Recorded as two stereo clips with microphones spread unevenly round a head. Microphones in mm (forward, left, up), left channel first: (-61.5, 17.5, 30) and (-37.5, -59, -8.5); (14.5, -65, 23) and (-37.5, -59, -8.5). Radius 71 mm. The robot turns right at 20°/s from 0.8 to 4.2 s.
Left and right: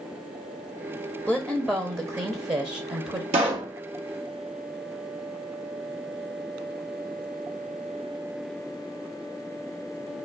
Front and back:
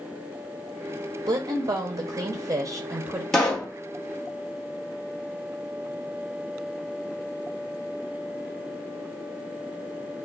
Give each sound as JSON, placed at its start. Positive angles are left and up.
{"t": 1.3, "sound": "a woman speaking", "azimuth_deg": -160, "distance_m": 0.8}
{"t": 3.3, "sound": "a pop", "azimuth_deg": -55, "distance_m": 1.2}